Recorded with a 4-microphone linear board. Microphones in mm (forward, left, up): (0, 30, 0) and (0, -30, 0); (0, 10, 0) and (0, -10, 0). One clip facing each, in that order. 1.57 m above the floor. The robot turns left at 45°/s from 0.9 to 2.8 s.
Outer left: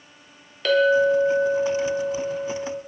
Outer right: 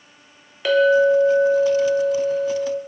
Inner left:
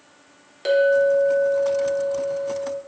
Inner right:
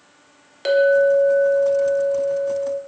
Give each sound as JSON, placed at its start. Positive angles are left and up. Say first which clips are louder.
{"t": 0.7, "sound": "a clink", "louder": "outer right 3 dB, inner right 2 dB", "side_deg": -10, "distance_m": 0.6}